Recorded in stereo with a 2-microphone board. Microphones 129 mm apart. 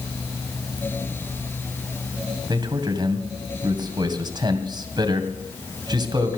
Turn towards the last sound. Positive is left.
turn(degrees=-35)  # may be behind; listen again after turning